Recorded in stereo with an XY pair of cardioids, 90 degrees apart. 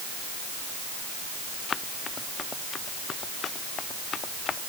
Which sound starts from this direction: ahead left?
Running footsteps, at 1.7 s.